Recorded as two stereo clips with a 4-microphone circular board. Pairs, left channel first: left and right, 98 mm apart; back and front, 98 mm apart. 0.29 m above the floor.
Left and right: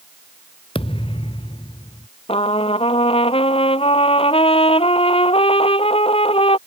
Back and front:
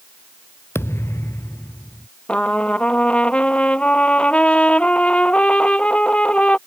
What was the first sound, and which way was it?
A thud, 115° left.